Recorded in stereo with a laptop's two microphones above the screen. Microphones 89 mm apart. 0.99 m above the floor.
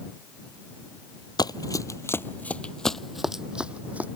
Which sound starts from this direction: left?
Running footsteps, at 1.4 s.